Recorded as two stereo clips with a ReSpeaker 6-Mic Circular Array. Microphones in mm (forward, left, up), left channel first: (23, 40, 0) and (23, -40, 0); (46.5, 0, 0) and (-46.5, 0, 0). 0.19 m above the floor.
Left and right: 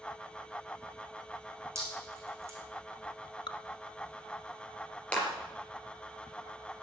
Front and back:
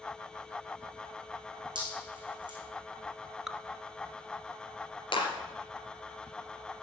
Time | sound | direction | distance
1.8 | dripping | 145° right | 5 m
3.5 | dripping | 95° left | 0.6 m
5.1 | a clap | 15° left | 3.5 m